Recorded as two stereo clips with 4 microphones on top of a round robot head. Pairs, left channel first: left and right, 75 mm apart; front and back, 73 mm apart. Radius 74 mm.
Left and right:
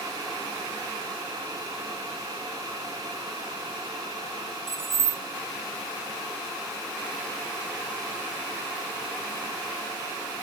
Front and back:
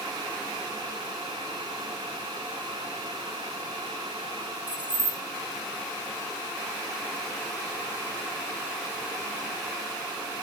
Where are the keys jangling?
120° right, 0.5 m.